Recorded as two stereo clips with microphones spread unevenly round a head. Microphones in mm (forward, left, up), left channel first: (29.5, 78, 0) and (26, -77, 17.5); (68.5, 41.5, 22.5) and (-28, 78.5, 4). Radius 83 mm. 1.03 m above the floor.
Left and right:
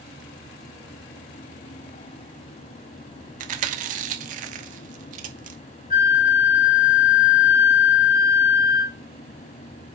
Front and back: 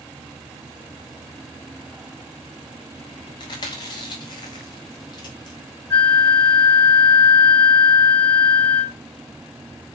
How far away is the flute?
About 2 m.